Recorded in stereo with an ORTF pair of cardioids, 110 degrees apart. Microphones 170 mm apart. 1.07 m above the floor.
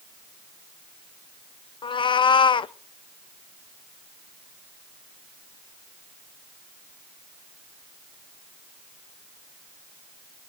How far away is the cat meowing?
About 0.8 m.